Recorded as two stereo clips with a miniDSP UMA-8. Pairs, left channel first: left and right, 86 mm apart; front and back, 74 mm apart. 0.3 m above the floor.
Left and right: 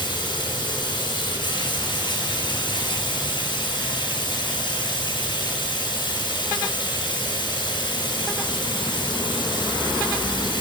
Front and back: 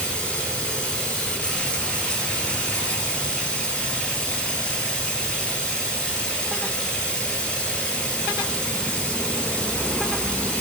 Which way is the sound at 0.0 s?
75° left.